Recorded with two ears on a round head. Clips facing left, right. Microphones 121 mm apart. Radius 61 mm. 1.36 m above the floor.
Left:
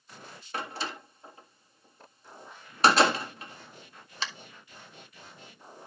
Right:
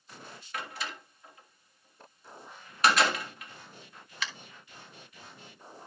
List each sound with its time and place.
0.5 s a door slam: 25° left (ahead or behind), 1.4 m